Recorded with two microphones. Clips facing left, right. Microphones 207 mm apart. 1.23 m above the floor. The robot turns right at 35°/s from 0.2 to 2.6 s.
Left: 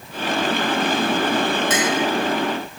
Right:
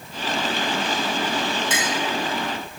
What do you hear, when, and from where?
1.7 s a clink: 70° left (ahead or behind), 3.5 m; by 1.9 s 60° left (ahead or behind), 3.5 m